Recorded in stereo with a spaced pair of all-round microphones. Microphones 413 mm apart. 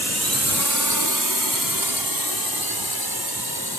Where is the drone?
35° right (ahead or behind); by 3.8 s 70° right (ahead or behind).